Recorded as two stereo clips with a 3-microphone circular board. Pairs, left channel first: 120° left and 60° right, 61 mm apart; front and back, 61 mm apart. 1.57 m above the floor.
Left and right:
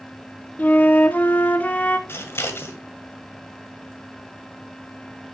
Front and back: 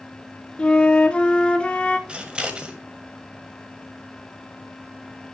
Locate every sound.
0.6 s a flute: 65° left, 0.7 m
2.1 s scissors: 115° left, 1.7 m